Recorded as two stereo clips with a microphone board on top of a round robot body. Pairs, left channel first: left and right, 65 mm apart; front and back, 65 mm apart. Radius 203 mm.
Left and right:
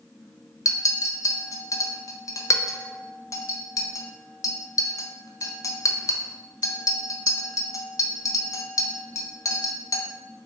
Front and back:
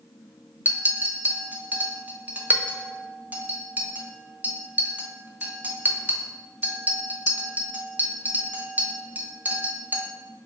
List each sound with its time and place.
0.7 s a clink: 120° left, 0.8 m